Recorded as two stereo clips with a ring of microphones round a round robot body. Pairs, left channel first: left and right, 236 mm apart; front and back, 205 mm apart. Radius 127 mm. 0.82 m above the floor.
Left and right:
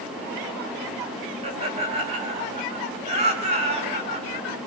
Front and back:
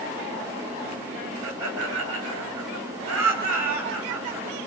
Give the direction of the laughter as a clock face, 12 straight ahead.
5 o'clock.